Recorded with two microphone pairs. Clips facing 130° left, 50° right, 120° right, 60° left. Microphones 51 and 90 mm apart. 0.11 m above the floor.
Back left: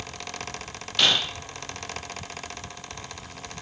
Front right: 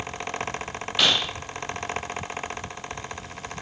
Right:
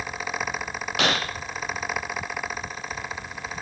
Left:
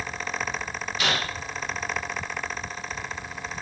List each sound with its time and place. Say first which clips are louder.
1.0 s breaking glass: even, right 3 dB; 130° right, 8 m